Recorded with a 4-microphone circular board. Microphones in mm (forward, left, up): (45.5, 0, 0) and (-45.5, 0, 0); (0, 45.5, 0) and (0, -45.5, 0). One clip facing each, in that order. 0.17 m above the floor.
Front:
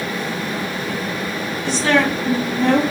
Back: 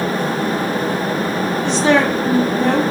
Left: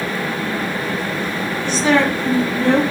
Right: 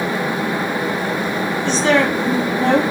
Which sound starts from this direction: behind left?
A woman speaking, at 1.6 s.